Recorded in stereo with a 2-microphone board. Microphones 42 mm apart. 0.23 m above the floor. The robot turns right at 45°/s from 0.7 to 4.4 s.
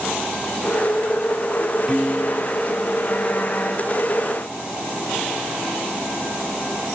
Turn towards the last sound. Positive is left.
turn(degrees=85)